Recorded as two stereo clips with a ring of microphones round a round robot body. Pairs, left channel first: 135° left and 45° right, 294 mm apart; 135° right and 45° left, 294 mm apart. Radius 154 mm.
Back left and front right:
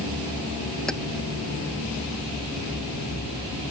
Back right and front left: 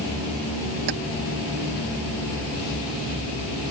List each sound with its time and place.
0.9 s keys jangling: 45° left